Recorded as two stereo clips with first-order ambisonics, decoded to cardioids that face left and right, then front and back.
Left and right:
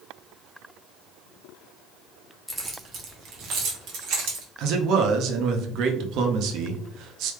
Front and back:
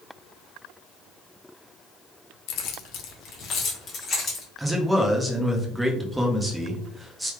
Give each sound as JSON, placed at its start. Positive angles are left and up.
{"t": 2.5, "sound": "keys jangling", "azimuth_deg": 0, "distance_m": 0.6}
{"t": 4.6, "sound": "a man speaking", "azimuth_deg": -100, "distance_m": 0.5}